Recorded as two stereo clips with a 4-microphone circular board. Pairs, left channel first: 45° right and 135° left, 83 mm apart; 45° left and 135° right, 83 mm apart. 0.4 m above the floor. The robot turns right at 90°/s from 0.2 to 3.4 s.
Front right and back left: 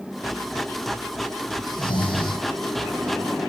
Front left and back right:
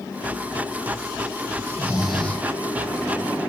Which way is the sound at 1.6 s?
85° right.